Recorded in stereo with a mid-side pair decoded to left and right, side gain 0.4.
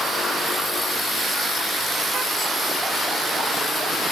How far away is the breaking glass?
I don't hear breaking glass.